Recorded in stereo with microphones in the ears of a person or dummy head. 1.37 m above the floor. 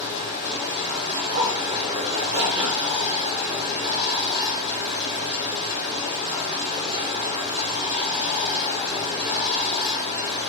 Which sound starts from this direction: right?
A zipper, at 1.1 s.